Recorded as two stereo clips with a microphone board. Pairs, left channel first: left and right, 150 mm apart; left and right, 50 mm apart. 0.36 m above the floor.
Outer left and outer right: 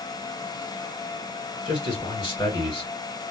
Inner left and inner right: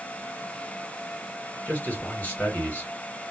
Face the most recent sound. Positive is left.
turn(degrees=35)  # may be behind; listen again after turning